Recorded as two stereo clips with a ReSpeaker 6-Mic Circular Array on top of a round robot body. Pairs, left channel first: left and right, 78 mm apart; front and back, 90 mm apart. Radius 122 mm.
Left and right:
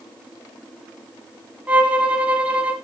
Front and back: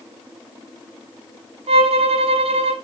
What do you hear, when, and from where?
1.7 s a violin: 165° right, 0.9 m